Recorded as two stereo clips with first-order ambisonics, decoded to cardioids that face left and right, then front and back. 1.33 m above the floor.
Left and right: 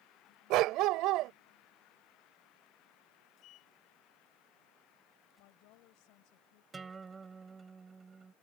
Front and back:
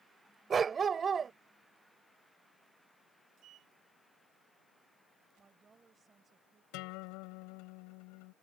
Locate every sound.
0.5 s a dog barking: 115° right
3.4 s a sliding door: 135° left
5.4 s a woman speaking: 110° left
6.7 s a guitar: 15° right